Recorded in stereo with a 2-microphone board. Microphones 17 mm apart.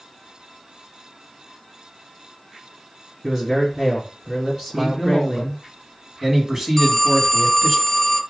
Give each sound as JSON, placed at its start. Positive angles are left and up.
{"t": 3.2, "sound": "a man speaking", "side_deg": -20, "distance_m": 2.5}
{"t": 4.8, "sound": "a man speaking", "side_deg": -25, "distance_m": 1.3}
{"t": 6.8, "sound": "a phone ringing", "side_deg": 10, "distance_m": 0.9}